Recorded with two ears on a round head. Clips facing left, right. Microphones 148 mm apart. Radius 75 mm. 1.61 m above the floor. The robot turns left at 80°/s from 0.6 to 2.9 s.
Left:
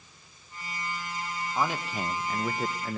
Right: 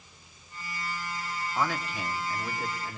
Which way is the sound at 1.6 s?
175° left.